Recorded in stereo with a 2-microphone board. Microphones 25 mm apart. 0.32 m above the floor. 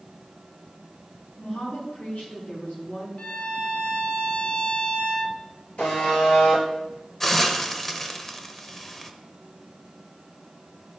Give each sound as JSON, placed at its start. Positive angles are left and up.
{"t": 1.4, "sound": "a woman speaking", "side_deg": 65, "distance_m": 3.5}
{"t": 3.2, "sound": "a violin", "side_deg": 55, "distance_m": 0.8}
{"t": 5.8, "sound": "a buzzer", "side_deg": 65, "distance_m": 3.5}
{"t": 7.2, "sound": "a hiss", "side_deg": 15, "distance_m": 0.7}